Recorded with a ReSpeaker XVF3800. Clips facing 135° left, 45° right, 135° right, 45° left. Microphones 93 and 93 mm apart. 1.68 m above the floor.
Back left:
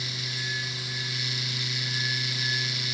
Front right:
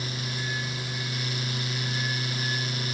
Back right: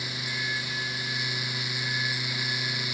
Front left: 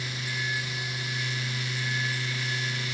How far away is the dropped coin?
No dropped coin in this recording.